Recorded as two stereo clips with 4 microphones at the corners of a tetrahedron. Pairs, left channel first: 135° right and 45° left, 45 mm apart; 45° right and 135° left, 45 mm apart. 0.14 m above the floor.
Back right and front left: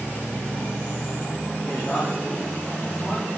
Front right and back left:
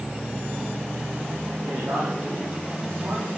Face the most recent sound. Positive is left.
turn(degrees=160)